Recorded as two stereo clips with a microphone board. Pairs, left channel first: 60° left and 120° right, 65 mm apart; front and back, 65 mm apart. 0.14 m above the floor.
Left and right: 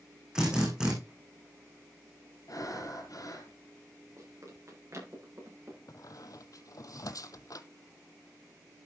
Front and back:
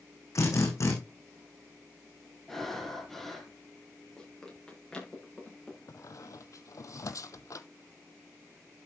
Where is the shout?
I don't hear a shout.